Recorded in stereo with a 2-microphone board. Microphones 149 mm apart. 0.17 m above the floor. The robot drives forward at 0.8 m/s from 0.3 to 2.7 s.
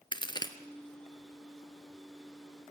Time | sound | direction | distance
0.1 | a crack | 30° left (ahead or behind) | 1.1 m